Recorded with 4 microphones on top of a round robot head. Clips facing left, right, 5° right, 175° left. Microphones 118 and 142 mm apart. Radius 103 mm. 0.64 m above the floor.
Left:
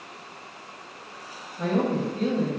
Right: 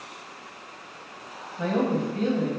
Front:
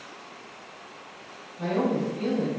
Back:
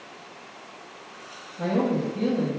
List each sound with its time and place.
1.6 s a woman speaking: 160° right, 0.8 m